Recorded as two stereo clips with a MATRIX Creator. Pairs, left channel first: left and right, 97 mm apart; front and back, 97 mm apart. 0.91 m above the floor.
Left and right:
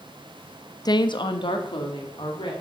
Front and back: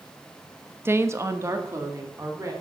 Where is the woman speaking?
120° left, 0.6 m.